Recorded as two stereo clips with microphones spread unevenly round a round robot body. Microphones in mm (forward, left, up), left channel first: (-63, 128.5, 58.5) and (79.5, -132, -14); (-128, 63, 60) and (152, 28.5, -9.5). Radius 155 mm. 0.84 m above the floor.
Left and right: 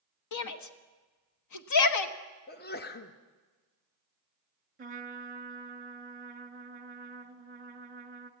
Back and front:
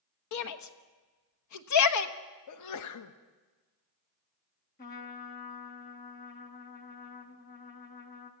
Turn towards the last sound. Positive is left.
turn(degrees=-120)